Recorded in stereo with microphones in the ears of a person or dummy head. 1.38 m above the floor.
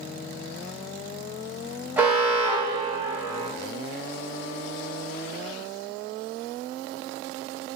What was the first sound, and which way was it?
An alarm, 5° right (ahead or behind).